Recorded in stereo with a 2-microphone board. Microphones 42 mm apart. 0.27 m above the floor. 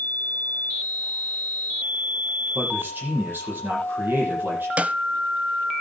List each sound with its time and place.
2.5 s a man speaking: 55° right (ahead or behind), 8.5 m
4.8 s a snare drum: 35° right (ahead or behind), 0.6 m